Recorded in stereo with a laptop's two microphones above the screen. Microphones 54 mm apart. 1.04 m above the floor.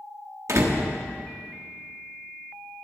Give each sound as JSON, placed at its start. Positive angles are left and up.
{"t": 0.5, "sound": "a door slam", "side_deg": -65, "distance_m": 1.3}